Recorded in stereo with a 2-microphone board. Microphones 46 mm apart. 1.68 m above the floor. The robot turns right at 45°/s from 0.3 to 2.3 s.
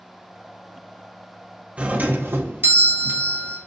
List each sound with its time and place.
1.8 s a doorbell: 25° right (ahead or behind), 0.9 m; by 3.6 s 50° right (ahead or behind), 0.9 m